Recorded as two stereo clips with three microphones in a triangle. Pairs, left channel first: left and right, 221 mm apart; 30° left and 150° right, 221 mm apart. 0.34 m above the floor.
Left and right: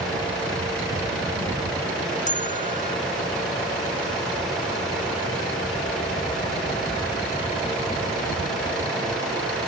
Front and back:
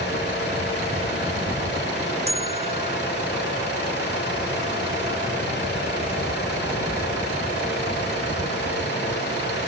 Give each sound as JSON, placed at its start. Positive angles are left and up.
{"t": 2.3, "sound": "a bell", "azimuth_deg": 145}